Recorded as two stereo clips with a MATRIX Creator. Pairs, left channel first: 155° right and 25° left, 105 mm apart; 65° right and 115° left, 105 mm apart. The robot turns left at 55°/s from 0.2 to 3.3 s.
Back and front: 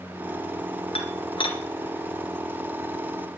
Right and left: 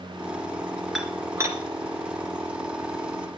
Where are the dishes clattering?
160° right, 1.9 m; by 1.6 s 165° left, 1.9 m.